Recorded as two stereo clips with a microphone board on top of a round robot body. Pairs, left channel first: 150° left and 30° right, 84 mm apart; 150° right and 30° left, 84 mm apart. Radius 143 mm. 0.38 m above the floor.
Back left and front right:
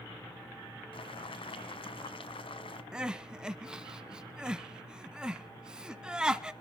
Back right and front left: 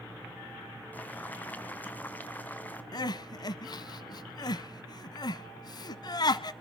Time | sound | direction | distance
0.9 | boiling | 140° left | 1.9 m
2.9 | crying | 110° right | 0.9 m